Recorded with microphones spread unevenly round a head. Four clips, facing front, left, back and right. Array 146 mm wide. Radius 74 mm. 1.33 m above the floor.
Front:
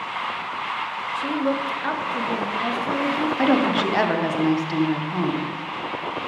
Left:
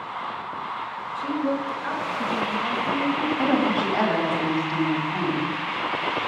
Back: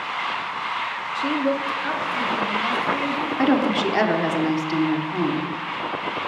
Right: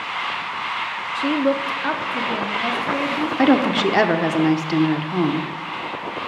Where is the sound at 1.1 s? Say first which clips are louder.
Right 6 dB, back 1 dB; 95° right, 0.7 m; by 3.3 s 55° right, 2 m.